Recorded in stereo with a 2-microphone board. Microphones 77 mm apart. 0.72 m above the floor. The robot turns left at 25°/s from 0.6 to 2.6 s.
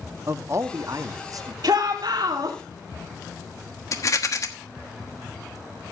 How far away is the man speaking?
About 0.8 m.